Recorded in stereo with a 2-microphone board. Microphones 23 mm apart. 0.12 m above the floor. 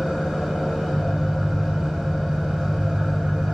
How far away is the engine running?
About 3 m.